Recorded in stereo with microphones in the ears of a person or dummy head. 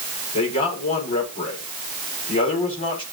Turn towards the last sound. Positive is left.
turn(degrees=45)  # may be behind; listen again after turning